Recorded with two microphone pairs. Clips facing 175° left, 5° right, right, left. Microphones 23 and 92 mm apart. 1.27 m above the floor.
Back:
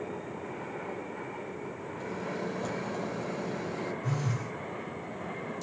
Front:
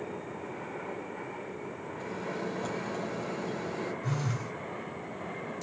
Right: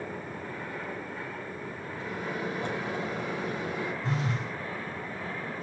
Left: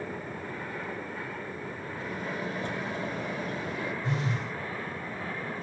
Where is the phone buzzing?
75° right, 3 m.